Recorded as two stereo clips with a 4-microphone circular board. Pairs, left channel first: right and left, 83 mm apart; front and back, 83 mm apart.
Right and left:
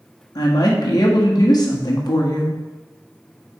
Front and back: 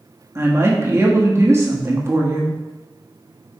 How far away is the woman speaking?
About 1.4 m.